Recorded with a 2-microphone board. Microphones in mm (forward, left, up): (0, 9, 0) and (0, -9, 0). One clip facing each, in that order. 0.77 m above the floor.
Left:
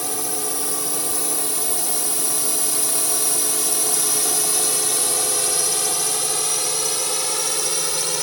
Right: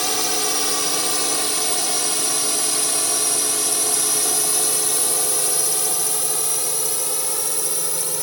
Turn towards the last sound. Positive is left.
turn(degrees=30)  # may be behind; listen again after turning